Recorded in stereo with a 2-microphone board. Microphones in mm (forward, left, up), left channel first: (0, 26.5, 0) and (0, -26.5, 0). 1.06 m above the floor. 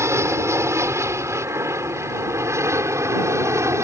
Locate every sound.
0.0 s an aircraft: 65° right (ahead or behind)